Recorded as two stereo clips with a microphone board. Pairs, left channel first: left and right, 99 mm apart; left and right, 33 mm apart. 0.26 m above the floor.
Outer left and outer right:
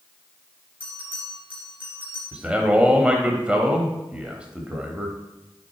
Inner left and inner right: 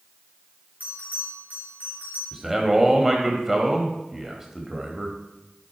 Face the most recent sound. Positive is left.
turn(degrees=-10)  # may be behind; listen again after turning